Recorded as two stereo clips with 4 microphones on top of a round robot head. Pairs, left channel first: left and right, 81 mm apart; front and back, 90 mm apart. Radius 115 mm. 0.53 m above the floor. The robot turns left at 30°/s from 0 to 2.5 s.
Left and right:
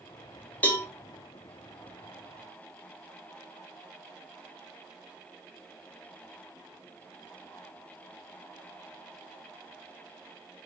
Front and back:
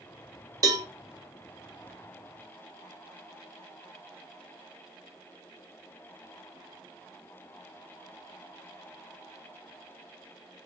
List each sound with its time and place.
0.6 s a cowbell: 155° left, 1.0 m; by 0.8 s 145° left, 1.0 m